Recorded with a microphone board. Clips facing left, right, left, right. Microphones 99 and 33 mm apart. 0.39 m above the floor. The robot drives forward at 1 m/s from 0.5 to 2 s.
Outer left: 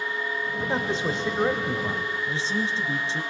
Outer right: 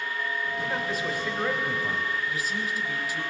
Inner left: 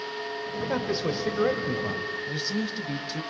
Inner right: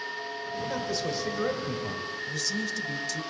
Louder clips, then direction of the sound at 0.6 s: Outer left 6 dB, inner left 4 dB; 30° left (ahead or behind).